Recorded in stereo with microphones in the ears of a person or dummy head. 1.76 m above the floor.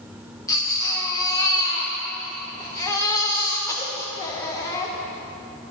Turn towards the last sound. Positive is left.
turn(degrees=15)  # may be behind; listen again after turning